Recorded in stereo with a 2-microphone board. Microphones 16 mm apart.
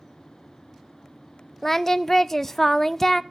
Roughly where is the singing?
Centre.